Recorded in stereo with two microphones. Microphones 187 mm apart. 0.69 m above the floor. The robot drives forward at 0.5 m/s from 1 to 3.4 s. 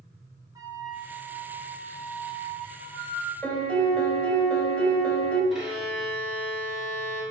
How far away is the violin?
About 1.8 m.